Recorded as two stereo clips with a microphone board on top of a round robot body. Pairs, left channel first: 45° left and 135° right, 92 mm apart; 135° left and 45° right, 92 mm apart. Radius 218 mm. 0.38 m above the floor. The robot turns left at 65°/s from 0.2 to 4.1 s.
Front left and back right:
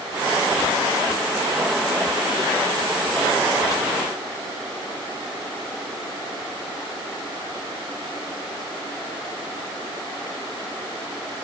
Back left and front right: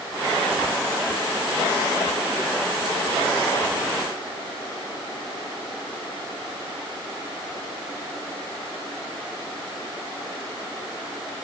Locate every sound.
Only background noise.